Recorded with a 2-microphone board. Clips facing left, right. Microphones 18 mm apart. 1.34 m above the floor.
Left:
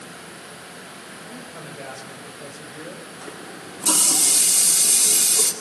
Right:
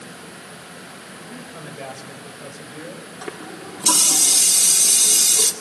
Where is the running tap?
60° right (ahead or behind), 2 m.